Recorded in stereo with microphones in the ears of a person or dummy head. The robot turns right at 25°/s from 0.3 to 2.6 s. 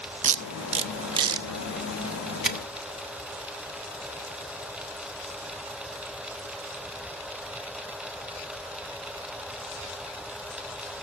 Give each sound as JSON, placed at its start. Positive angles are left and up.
{"t": 0.2, "sound": "tape being pulled", "side_deg": -40, "distance_m": 0.9}